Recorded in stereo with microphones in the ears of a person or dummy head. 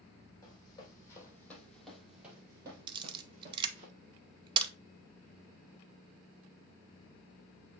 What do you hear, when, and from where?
0.4 s running footsteps: 20° left (ahead or behind), 3 m; by 3.9 s 40° right (ahead or behind), 2 m
2.9 s a camera shutter: 25° right (ahead or behind), 0.7 m